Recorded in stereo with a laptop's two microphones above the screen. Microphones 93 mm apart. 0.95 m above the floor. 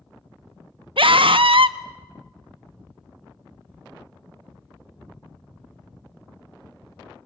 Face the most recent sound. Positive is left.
turn(degrees=-70)  # may be behind; listen again after turning